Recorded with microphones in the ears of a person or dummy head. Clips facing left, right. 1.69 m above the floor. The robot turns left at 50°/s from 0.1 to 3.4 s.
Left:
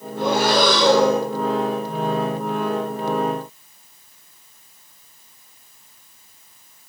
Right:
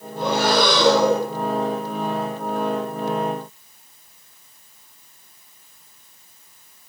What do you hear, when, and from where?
0.2 s breathing: 165° left, 0.9 m; by 1.3 s 110° left, 0.9 m